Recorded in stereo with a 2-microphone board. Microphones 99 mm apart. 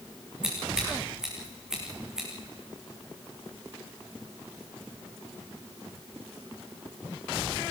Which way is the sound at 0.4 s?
5° right (ahead or behind).